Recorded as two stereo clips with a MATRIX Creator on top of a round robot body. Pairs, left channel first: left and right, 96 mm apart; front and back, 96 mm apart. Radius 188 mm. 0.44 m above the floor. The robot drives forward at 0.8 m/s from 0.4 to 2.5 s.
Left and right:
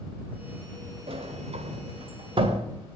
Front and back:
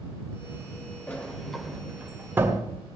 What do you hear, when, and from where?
1.1 s a sliding door: 75° right, 1.6 m; by 2.7 s 115° right, 1.7 m